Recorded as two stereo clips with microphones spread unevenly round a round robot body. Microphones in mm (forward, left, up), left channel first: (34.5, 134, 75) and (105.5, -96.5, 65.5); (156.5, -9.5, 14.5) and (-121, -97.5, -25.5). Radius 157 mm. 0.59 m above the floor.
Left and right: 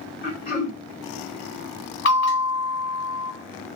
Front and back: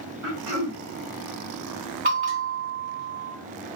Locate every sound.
0.2 s throat clearing: 160° left, 1.9 m
2.0 s a bell: 145° left, 2.5 m